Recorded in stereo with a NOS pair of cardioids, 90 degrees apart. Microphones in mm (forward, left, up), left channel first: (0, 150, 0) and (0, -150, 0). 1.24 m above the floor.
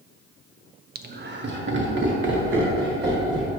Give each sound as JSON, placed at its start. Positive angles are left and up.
{"t": 0.9, "sound": "laughter", "azimuth_deg": -30, "distance_m": 0.8}